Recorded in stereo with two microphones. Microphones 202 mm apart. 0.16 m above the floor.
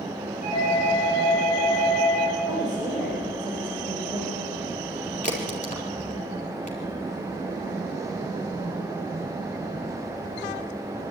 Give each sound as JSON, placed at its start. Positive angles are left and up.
{"t": 0.4, "sound": "a doorbell", "side_deg": 35, "distance_m": 8.5}
{"t": 2.5, "sound": "a woman speaking", "side_deg": 20, "distance_m": 8.0}
{"t": 5.2, "sound": "a crack", "side_deg": 35, "distance_m": 4.0}